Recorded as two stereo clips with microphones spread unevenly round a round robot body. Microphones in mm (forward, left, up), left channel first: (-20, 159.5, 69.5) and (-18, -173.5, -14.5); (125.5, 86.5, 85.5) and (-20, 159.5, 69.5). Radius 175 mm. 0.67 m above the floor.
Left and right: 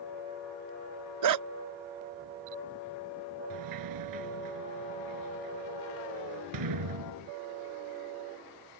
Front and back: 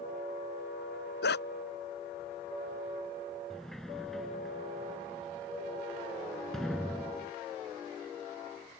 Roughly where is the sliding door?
Behind right.